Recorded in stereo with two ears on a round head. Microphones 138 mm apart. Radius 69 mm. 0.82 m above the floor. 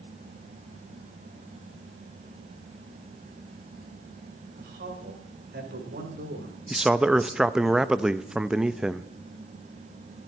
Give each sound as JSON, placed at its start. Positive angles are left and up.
{"t": 4.6, "sound": "a man speaking", "side_deg": -65, "distance_m": 4.5}
{"t": 6.7, "sound": "a man speaking", "side_deg": -5, "distance_m": 0.5}